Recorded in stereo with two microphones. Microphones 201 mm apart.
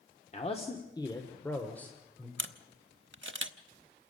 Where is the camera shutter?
70° right (ahead or behind), 0.9 m.